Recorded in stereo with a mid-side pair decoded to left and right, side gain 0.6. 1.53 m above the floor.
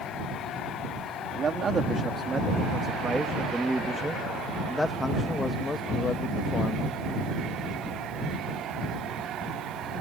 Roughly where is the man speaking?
Ahead right.